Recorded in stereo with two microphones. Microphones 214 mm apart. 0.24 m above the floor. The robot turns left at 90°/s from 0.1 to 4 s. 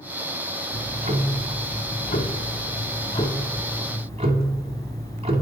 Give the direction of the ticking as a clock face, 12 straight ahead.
3 o'clock.